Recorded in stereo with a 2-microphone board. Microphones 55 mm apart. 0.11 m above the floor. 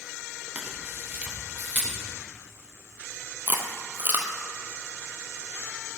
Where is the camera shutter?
25° right (ahead or behind), 4.5 m.